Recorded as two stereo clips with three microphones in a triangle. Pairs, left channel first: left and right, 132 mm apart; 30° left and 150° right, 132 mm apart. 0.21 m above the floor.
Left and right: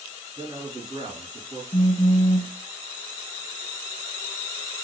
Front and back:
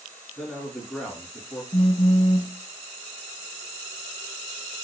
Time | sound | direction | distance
0.4 | a man speaking | 60° right | 2.0 m
1.7 | a phone buzzing | 65° left | 0.6 m